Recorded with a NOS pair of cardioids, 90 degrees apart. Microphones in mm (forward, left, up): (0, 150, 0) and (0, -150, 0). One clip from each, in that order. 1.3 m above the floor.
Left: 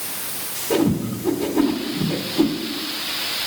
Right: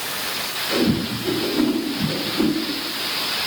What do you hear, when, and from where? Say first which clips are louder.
0.7 s a whoosh: left 2 dB; 40° left, 2.5 m